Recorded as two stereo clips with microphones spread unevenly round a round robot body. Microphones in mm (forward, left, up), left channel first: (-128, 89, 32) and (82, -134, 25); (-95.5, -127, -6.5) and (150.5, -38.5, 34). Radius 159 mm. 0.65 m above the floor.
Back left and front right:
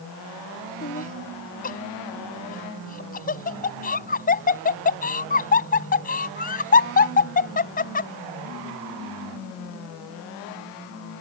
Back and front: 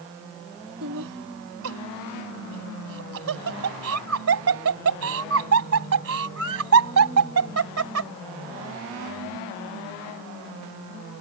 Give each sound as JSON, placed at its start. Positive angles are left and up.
{"t": 0.8, "sound": "laughter", "azimuth_deg": 70}